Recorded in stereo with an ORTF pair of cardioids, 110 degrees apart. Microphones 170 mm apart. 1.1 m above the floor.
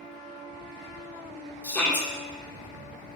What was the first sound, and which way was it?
A shout, 10° left.